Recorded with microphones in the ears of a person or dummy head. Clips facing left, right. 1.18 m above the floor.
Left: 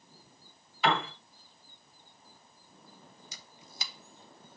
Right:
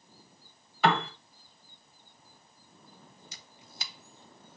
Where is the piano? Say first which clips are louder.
Right 3 dB; 50° right (ahead or behind), 1.6 m.